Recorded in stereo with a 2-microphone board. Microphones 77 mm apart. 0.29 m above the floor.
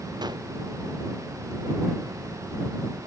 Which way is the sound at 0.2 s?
65° right (ahead or behind).